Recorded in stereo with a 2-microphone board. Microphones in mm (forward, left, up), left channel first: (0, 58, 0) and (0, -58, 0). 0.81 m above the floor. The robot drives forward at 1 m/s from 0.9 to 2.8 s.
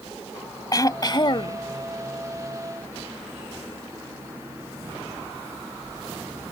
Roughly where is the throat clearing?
Left.